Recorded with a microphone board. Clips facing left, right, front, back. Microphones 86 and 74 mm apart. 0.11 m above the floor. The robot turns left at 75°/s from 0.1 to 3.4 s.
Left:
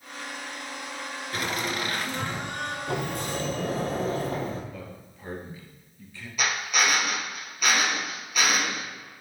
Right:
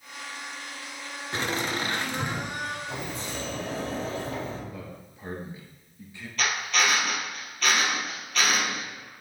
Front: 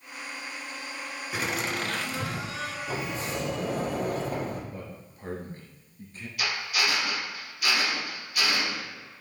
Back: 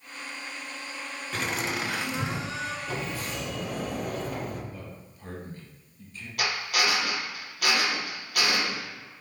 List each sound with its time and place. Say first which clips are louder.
1.3 s laughter: right 1 dB, even; 70° right, 1.4 m; by 2.8 s straight behind, 1.4 m
2.9 s a sliding door: left 5 dB, front 1 dB; 90° left, 1.4 m; by 4.6 s 50° left, 1.4 m
4.7 s a man speaking: even, front 2 dB; 25° right, 2 m
6.4 s a drill: even, back 2 dB; 165° left, 3 m